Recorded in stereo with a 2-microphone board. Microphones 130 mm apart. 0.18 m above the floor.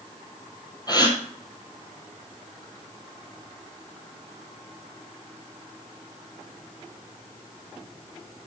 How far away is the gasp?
About 1.9 m.